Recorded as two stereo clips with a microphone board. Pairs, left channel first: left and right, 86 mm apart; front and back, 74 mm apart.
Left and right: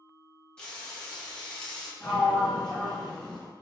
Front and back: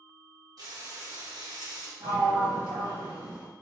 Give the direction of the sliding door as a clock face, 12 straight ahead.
6 o'clock.